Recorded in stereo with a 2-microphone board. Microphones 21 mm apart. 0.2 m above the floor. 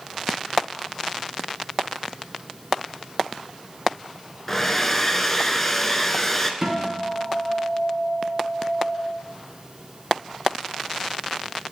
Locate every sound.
4.5 s a hair dryer: 15° left (ahead or behind), 0.5 m
6.6 s a guitar: 20° right (ahead or behind), 1.3 m